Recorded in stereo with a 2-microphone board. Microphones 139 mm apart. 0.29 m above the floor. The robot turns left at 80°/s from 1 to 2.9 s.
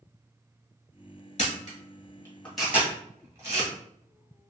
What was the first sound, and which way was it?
A camera shutter, 55° left (ahead or behind).